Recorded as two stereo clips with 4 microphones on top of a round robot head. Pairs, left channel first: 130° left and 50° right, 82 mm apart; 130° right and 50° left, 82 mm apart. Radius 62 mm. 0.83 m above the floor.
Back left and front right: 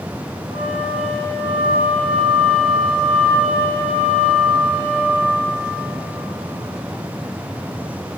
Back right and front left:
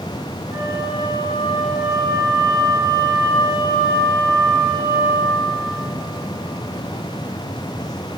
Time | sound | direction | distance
0.5 | a flute | 15° right | 2 m